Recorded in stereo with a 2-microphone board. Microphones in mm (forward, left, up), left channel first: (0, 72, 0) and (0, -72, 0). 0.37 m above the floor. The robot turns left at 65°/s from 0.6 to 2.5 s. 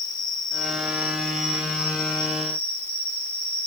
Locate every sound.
0.0 s an insect: 110° left, 1.9 m; by 3.7 s 10° right, 1.9 m